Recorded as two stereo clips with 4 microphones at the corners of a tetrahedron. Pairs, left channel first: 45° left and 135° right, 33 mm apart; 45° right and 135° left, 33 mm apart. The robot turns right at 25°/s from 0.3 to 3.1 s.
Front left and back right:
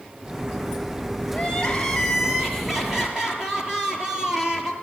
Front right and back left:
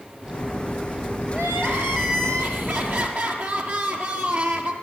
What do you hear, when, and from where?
1.3 s crying: 110° left, 4 m; by 4.7 s 155° left, 4 m